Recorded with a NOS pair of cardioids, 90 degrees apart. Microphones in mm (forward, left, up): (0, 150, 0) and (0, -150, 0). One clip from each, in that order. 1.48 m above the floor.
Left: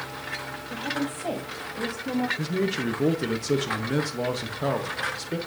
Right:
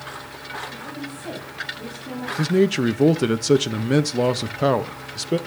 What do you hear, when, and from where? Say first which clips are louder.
0.7 s a woman speaking: left 4 dB; 55° left, 5.5 m
2.4 s a man speaking: right 8 dB; 40° right, 0.7 m